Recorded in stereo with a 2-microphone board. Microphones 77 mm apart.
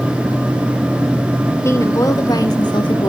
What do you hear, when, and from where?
1.6 s a woman speaking: 40° left (ahead or behind), 2.0 m; by 3.1 s 80° left, 1.4 m